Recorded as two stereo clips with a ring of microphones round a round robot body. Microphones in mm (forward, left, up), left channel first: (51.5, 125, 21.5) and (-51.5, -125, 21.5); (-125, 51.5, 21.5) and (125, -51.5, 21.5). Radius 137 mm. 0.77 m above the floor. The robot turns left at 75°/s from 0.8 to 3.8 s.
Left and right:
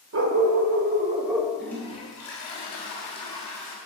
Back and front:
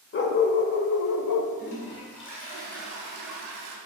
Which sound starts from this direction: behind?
A toilet flushing, at 1.6 s.